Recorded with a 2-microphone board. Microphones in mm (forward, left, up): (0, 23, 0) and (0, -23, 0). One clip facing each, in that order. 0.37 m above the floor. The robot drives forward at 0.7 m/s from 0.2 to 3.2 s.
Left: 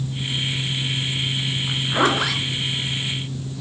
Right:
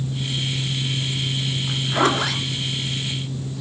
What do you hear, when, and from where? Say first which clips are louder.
1.7 s a zipper: even; 10° left (ahead or behind), 2.5 m; by 3.6 s 5° left (ahead or behind), 3.5 m